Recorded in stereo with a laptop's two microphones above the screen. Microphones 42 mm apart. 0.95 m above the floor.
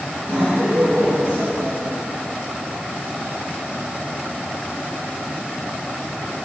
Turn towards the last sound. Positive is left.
turn(degrees=-60)  # may be behind; listen again after turning